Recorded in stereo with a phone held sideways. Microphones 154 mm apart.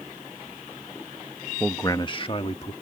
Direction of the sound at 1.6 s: 5° left (ahead or behind).